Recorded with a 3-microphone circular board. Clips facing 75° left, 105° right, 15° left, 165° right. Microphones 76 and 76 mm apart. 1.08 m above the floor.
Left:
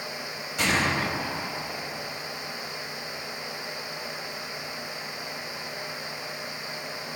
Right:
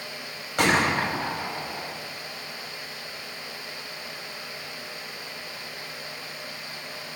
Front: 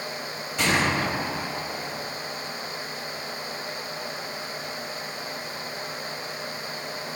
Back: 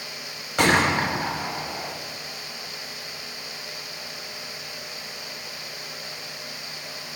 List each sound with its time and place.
0.6 s a gunshot: 135° right, 1.9 m